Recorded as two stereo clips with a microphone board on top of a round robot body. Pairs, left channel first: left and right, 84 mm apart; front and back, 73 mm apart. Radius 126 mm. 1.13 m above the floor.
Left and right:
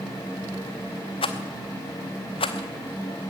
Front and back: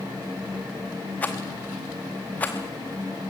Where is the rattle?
75° left, 0.7 m.